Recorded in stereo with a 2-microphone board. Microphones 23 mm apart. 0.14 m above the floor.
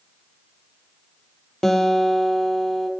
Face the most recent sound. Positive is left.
turn(degrees=15)  # may be behind; listen again after turning